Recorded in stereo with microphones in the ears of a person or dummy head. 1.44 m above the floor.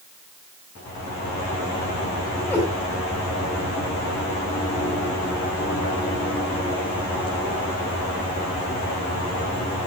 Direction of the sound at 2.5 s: 10° left (ahead or behind).